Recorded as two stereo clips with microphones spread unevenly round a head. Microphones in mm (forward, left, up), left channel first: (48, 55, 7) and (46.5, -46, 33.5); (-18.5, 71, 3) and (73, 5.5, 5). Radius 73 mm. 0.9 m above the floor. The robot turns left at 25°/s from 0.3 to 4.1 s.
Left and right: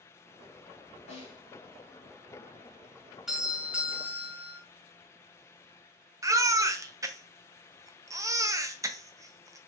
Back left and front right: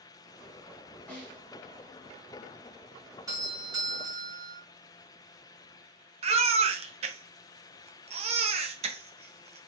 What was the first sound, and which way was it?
A snare drum, 70° left.